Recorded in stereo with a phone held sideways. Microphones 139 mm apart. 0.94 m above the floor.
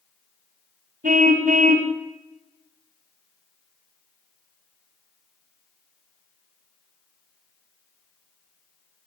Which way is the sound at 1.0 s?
70° right (ahead or behind).